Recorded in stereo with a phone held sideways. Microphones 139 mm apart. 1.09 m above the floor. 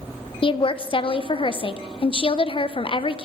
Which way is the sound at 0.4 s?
40° left (ahead or behind).